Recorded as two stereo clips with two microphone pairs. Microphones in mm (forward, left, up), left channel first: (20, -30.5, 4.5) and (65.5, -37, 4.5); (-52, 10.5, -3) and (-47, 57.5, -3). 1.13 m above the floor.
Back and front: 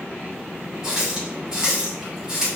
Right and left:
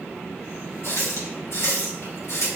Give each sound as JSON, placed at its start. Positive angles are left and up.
{"t": 0.8, "sound": "a running tap", "azimuth_deg": -80, "distance_m": 2.5}